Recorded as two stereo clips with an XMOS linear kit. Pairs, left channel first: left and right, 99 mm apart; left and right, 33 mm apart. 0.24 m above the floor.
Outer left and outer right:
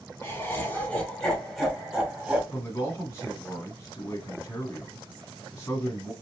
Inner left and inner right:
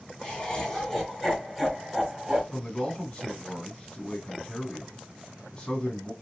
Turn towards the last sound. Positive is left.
turn(degrees=25)  # may be behind; listen again after turning